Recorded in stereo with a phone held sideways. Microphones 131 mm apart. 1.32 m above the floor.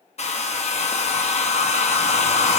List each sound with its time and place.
0.2 s a hair dryer: 55° left (ahead or behind), 0.8 m